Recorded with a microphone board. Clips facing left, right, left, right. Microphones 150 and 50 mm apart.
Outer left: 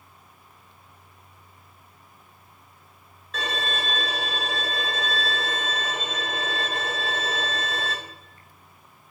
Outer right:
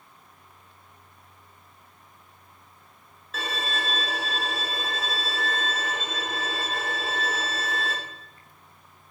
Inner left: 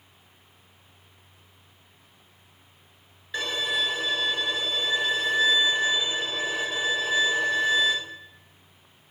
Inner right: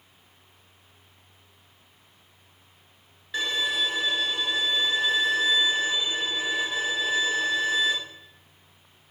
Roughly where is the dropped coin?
No dropped coin in this recording.